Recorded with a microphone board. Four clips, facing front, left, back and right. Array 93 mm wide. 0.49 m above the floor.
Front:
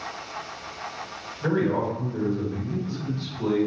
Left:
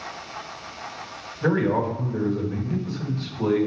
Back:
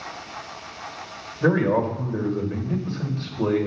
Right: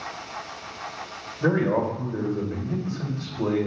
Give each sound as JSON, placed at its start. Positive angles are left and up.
{"t": 1.4, "sound": "a man speaking", "azimuth_deg": -155, "distance_m": 2.0}